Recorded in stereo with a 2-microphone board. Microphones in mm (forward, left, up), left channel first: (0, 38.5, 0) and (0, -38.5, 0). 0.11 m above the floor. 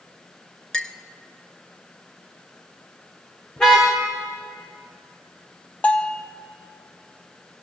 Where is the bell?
15° left (ahead or behind), 1.6 m.